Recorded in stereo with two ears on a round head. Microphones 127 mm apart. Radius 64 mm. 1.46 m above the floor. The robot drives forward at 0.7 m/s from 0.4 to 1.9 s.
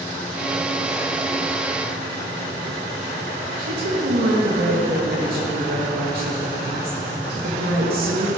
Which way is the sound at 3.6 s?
85° right.